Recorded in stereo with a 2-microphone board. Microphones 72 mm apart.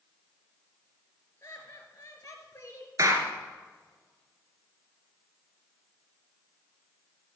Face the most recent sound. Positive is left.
turn(degrees=-50)  # may be behind; listen again after turning